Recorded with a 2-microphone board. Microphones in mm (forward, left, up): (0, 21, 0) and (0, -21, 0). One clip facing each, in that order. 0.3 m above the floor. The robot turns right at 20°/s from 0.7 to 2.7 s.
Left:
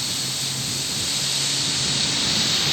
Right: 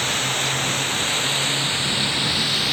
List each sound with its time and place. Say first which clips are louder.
0.0 s running water: right 7 dB; 50° right; by 2.7 s 10° right